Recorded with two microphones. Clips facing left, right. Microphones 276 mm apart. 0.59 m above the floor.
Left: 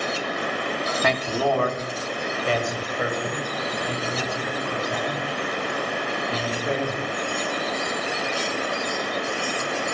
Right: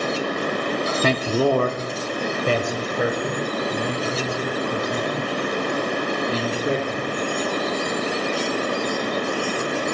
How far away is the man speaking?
About 0.7 m.